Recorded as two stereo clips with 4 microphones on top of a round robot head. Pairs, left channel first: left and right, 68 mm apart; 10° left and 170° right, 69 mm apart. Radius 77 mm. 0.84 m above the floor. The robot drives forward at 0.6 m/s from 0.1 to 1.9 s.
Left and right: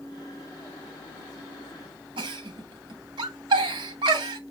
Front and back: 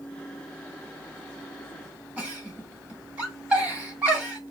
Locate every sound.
2.2 s a giggle: 95° right, 0.7 m